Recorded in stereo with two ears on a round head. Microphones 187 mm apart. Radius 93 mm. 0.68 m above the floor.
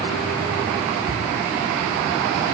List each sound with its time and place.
1.1 s ticking: 45° left (ahead or behind), 1.2 m